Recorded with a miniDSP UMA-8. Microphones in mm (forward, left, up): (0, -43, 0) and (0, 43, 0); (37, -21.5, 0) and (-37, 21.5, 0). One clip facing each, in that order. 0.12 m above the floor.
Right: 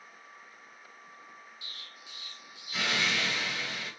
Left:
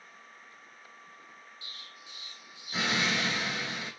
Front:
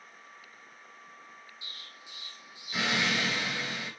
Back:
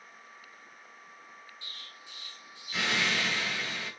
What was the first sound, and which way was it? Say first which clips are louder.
An explosion: even, even; 45° left.